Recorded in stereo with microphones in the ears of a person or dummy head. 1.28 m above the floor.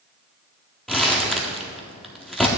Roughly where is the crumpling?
Centre.